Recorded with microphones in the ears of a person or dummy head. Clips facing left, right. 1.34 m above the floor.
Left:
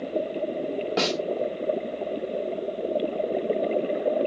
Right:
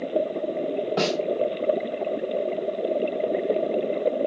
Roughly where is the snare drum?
Left.